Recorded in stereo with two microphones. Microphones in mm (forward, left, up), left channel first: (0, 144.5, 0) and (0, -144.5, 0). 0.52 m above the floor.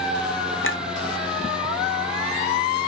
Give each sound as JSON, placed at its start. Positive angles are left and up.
{"t": 0.6, "sound": "a clink", "side_deg": 45, "distance_m": 0.9}